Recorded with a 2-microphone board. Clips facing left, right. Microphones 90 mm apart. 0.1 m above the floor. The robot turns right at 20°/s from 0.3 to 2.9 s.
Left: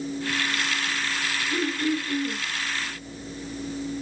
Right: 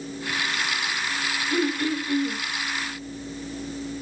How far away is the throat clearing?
About 7.5 m.